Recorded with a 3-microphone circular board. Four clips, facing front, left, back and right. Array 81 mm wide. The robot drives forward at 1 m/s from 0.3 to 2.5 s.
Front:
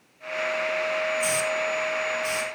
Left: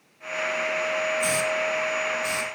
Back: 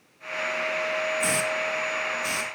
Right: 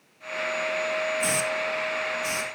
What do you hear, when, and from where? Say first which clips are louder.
1.2 s a hiss: left 2 dB, front 1 dB; 150° right, 0.8 m; by 2.5 s 170° right, 2.0 m